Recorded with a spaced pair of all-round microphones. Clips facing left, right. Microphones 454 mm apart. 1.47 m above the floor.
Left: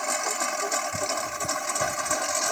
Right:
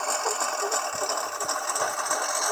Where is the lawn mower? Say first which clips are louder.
Right 1 dB; 40° left (ahead or behind); by 2.5 s 45° left (ahead or behind).